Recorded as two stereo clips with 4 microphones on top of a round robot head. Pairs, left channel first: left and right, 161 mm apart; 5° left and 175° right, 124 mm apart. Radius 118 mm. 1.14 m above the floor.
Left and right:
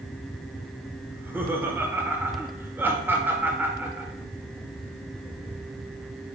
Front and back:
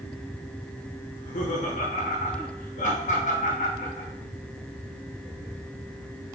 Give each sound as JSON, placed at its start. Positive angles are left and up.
{"t": 1.1, "sound": "laughter", "azimuth_deg": -10, "distance_m": 1.3}